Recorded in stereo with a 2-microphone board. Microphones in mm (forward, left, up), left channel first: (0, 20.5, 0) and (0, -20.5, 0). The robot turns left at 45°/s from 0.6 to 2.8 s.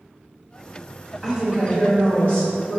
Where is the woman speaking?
10° right, 1.3 m; by 2.8 s 85° right, 1.3 m.